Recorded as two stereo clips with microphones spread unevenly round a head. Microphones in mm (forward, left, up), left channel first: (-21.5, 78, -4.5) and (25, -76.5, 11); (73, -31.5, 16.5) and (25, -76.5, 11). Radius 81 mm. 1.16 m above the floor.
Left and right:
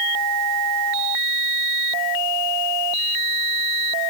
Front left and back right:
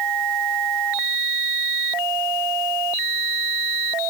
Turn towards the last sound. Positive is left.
No sound to turn to.